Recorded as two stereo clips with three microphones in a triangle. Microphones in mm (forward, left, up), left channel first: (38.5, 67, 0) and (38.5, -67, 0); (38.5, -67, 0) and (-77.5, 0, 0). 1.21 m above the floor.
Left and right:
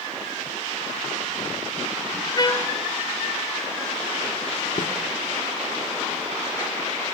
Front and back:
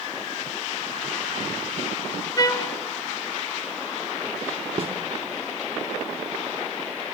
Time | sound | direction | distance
2.4 | a trumpet | 30° left | 1.0 m
4.8 | a snare drum | 105° left | 1.7 m